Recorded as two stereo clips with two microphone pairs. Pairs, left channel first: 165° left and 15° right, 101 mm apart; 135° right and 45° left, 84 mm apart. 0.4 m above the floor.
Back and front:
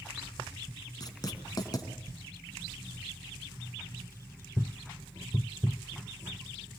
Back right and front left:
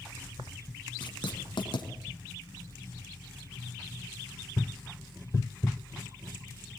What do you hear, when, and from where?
1.0 s writing: 150° right, 3 m